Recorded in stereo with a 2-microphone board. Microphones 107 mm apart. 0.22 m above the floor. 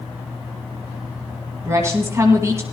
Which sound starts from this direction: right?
A woman speaking, at 1.6 s.